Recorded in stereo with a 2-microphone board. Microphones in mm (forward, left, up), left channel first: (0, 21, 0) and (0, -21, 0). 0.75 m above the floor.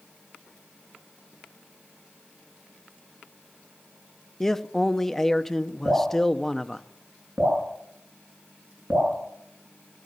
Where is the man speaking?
10° left (ahead or behind), 0.6 m.